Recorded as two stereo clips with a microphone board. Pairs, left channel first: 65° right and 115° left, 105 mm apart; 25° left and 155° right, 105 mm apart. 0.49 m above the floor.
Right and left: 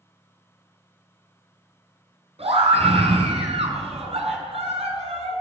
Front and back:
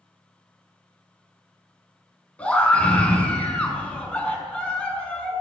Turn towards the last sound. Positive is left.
turn(degrees=100)